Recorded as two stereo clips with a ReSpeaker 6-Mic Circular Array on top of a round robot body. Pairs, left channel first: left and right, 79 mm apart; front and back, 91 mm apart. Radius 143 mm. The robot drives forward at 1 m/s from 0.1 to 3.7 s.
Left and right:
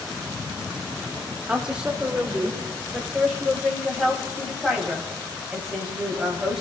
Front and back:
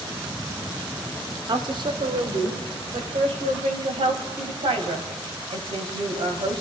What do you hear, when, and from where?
1.5 s a woman speaking: 160° right, 1.9 m; by 6.6 s 175° right, 4 m